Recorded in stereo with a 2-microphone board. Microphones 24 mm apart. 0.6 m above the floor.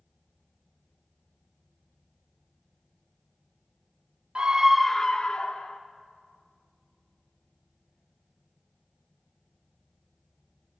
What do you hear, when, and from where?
4.3 s a scream: 45° right (ahead or behind), 0.8 m; by 5.8 s 65° left (ahead or behind), 1.3 m